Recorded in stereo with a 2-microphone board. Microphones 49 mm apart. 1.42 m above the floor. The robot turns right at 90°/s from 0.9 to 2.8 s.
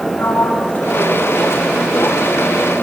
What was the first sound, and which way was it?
A sliding door, 40° left.